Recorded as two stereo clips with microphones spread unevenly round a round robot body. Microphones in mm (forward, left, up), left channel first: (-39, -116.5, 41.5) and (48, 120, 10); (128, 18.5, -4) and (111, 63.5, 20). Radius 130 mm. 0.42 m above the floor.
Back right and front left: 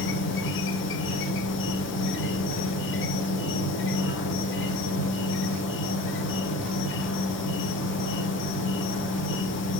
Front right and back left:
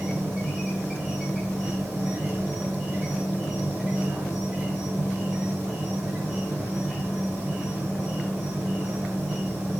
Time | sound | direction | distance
0.0 | an insect | 150° right | 1.1 m